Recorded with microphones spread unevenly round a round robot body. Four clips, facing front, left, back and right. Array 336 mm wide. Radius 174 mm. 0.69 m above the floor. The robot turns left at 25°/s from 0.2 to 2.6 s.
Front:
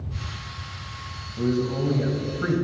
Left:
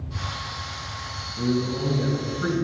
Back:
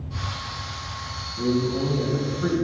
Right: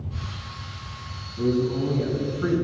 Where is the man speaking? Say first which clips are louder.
Right 2 dB, back 1 dB; 40° left, 3.5 m; by 2.6 s 10° left, 3.5 m.